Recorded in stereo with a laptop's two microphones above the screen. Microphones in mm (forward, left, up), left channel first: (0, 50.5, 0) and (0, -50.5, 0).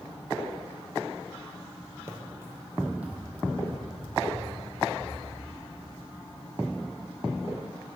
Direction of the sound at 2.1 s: 25° right (ahead or behind).